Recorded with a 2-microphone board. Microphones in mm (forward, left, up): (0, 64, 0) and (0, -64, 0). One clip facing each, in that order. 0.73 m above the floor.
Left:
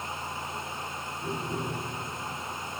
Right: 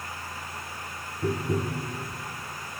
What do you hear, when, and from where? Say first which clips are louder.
1.2 s tapping: right 6 dB; 70° right (ahead or behind), 1.6 m